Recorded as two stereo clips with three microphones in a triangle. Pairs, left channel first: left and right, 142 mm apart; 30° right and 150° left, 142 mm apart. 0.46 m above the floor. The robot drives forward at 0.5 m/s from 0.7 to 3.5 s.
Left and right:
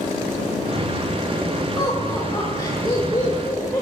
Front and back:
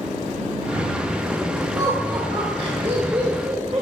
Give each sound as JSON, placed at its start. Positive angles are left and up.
{"t": 1.8, "sound": "laughter", "azimuth_deg": 115, "distance_m": 1.5}